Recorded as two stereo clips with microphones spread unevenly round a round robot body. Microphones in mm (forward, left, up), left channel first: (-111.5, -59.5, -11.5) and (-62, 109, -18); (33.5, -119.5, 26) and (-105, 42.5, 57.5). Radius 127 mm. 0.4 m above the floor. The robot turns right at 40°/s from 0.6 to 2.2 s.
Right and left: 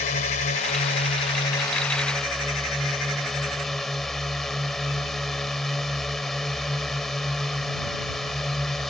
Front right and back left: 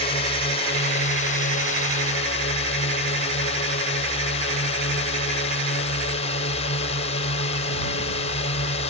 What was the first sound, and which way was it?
A drone, 85° right.